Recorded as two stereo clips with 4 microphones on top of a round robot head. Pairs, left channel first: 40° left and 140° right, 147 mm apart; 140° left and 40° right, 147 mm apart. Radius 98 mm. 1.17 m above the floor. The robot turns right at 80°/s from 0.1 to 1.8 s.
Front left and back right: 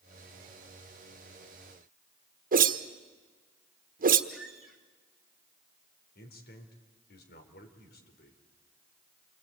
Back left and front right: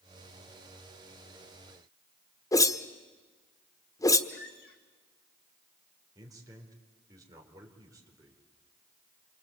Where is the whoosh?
155° right, 1.2 m.